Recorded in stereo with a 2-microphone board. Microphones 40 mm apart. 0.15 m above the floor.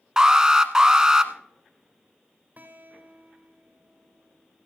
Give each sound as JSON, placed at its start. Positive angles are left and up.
{"t": 0.2, "sound": "an alarm", "side_deg": -15, "distance_m": 0.9}
{"t": 2.6, "sound": "a guitar", "side_deg": -45, "distance_m": 3.0}